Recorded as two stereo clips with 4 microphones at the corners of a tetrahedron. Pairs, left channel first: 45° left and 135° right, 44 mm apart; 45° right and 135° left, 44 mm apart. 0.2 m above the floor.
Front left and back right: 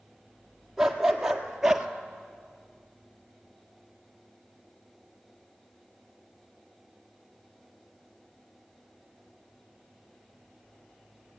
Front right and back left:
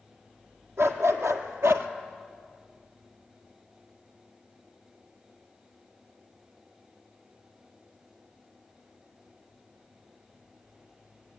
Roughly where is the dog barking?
Behind left.